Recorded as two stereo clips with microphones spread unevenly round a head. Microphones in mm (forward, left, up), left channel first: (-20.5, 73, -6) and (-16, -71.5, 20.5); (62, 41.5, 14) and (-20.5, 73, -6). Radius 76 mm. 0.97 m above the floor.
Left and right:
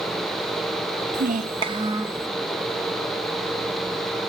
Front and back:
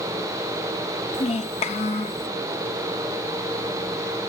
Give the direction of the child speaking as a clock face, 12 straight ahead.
2 o'clock.